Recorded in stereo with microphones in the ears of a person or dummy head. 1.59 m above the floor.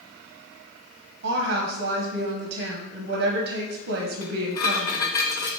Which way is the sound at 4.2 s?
20° left (ahead or behind).